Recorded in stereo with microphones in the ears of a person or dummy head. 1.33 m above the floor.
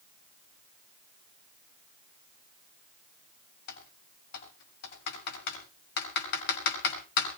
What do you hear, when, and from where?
3.7 s typing on a keyboard: 60° left (ahead or behind), 6.5 m